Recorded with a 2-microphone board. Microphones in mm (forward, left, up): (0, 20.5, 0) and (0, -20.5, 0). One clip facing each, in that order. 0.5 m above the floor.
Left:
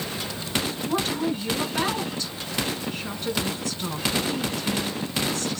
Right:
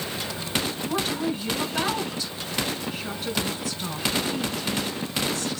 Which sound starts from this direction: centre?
A woman speaking, at 0.8 s.